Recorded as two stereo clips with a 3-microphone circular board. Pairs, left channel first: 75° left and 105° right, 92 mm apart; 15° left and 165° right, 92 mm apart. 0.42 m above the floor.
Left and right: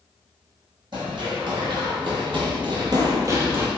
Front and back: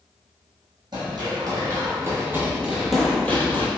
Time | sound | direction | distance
0.9 | running footsteps | 130° right | 1.3 m